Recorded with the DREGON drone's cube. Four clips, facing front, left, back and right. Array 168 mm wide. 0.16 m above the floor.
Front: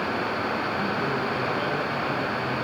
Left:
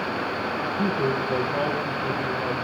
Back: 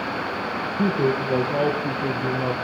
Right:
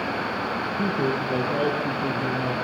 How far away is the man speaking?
About 4.5 m.